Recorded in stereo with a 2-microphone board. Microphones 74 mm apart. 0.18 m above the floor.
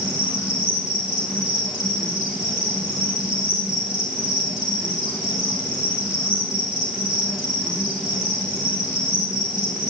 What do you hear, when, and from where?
0.0 s an insect: 10° right (ahead or behind), 7 m